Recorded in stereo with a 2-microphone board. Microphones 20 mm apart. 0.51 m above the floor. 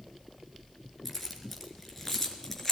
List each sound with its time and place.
1.1 s keys jangling: centre (ahead or behind), 4.5 m; by 2.7 s 15° left (ahead or behind), 4.5 m